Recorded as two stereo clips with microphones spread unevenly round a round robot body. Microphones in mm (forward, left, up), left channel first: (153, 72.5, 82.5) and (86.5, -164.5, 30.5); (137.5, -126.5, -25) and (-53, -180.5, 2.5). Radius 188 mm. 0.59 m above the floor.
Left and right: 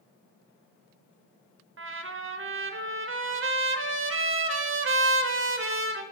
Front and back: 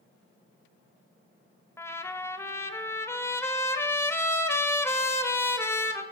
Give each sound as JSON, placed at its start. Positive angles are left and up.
{"t": 1.8, "sound": "a trumpet", "azimuth_deg": -65, "distance_m": 1.1}